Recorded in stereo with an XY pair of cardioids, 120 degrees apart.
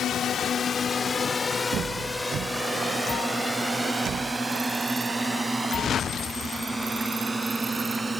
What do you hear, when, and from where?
0.0 s a drone: 60° left; by 8.2 s 15° right